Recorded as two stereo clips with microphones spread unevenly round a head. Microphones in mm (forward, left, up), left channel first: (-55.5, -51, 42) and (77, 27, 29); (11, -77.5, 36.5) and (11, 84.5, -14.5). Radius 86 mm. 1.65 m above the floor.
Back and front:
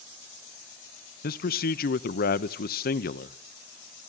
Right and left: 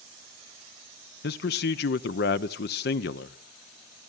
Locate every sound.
1.2 s a man speaking: 120° right, 0.9 m